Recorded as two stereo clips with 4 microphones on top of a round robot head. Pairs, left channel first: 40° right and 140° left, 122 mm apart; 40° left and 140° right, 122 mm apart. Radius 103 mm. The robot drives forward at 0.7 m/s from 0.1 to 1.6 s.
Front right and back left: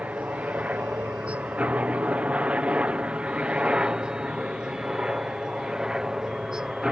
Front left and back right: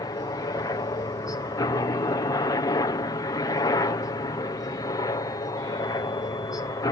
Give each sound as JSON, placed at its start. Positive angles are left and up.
{"t": 0.0, "sound": "a helicopter", "azimuth_deg": 70}